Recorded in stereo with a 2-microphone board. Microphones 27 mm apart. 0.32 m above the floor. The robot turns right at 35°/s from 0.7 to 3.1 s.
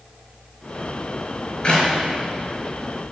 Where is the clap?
35° left (ahead or behind), 5 m; by 1.9 s 40° left (ahead or behind), 5 m.